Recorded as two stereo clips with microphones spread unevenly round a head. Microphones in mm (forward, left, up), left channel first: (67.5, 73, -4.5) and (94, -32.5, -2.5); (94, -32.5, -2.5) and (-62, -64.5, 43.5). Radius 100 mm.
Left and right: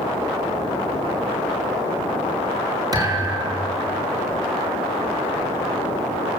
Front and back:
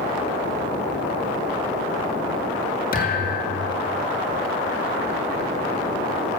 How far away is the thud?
About 7 m.